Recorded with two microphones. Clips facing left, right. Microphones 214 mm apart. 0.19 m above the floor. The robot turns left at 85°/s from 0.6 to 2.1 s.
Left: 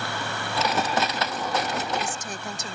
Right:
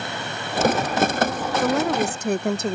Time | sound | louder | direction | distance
1.6 | a woman speaking | right 9 dB | 80° right | ?